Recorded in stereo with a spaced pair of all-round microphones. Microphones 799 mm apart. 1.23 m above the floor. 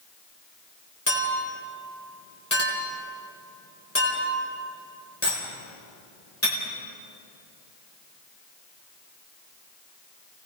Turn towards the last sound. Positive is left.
turn(degrees=15)  # may be behind; listen again after turning